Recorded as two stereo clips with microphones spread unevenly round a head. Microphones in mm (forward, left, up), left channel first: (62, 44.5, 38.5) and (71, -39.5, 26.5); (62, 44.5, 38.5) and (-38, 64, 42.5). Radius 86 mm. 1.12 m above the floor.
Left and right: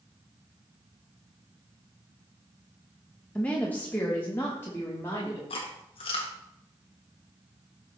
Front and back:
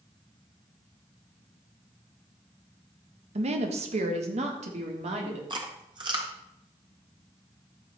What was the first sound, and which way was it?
A woman speaking, straight behind.